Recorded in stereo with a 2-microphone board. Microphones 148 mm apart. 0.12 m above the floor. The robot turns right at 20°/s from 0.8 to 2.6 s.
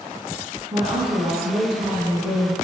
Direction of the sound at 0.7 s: 140° right.